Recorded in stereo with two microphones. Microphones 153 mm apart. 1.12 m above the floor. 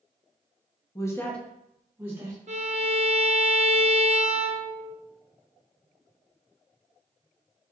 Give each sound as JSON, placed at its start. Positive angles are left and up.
{"t": 0.9, "sound": "a woman speaking", "side_deg": 25, "distance_m": 0.6}
{"t": 2.5, "sound": "a violin", "side_deg": -55, "distance_m": 0.6}